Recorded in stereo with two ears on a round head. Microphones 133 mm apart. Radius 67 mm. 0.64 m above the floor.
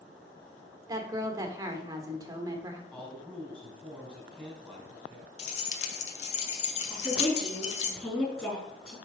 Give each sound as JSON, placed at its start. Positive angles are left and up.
{"t": 0.9, "sound": "a woman speaking", "side_deg": -25, "distance_m": 1.5}
{"t": 2.9, "sound": "a man speaking", "side_deg": 10, "distance_m": 4.5}
{"t": 5.4, "sound": "keys jangling", "side_deg": 45, "distance_m": 1.3}
{"t": 6.9, "sound": "a woman speaking", "side_deg": 10, "distance_m": 5.0}